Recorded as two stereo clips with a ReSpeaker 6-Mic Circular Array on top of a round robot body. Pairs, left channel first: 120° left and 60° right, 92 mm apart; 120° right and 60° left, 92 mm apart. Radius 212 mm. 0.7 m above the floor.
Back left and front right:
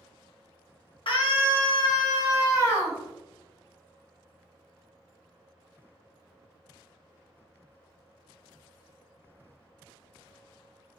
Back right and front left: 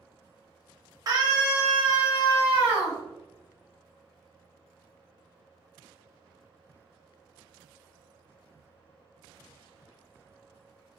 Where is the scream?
105° left, 1.3 m; by 3.0 s 60° left, 1.5 m.